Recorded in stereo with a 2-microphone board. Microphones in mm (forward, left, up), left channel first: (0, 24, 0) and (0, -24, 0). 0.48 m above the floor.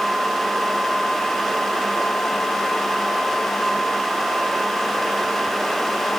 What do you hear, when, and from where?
Only background noise.